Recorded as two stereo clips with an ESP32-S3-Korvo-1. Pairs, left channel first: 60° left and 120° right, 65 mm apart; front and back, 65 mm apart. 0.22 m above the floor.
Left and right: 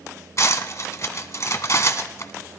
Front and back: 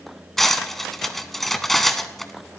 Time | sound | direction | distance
0.4 | cutlery clinking | 85° left | 1.0 m